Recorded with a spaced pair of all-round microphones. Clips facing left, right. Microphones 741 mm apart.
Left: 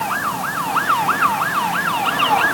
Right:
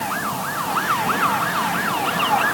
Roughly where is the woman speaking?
No woman speaking in this recording.